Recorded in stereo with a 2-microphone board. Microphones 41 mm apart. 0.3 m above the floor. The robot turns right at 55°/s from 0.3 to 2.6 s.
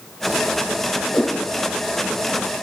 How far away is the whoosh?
About 2.5 m.